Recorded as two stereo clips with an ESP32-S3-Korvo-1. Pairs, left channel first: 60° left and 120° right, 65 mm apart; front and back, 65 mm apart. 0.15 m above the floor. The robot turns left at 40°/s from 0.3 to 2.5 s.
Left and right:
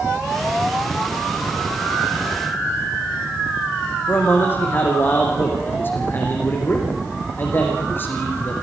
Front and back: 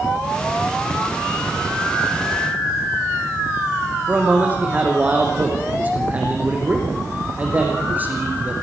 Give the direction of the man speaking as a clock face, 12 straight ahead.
8 o'clock.